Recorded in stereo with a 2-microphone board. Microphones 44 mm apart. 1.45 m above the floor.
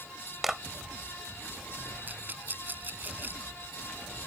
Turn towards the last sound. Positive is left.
turn(degrees=-45)  # may be behind; listen again after turning